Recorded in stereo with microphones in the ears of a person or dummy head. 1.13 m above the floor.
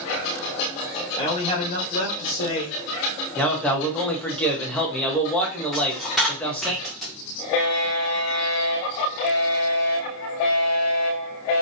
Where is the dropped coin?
5° right (ahead or behind), 0.6 m.